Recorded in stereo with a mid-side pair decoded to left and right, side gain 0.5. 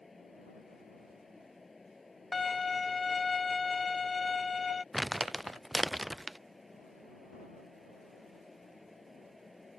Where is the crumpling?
5° right.